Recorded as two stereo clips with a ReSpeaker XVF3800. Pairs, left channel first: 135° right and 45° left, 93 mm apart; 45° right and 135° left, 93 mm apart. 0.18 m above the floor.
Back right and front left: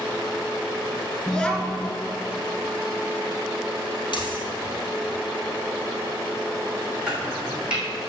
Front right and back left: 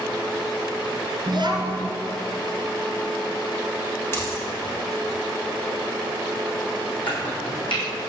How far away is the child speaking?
About 1.9 m.